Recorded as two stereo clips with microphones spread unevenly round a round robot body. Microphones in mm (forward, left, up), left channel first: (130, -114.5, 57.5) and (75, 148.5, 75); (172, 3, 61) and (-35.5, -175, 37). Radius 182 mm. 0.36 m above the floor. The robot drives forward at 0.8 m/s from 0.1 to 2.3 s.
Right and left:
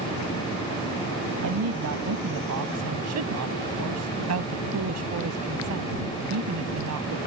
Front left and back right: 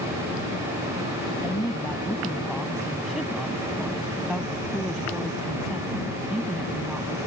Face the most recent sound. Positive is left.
turn(degrees=130)